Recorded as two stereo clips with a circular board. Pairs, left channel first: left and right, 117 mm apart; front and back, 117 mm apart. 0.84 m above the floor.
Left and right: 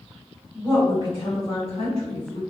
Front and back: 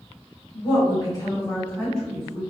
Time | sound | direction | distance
0.5 | a woman speaking | 40° left | 1.9 m